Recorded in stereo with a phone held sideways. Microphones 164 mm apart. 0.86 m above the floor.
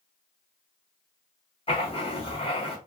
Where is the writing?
35° left (ahead or behind), 1.1 m.